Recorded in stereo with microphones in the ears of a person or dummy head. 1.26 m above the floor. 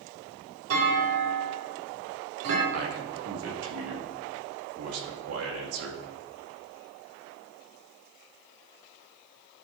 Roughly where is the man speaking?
Right.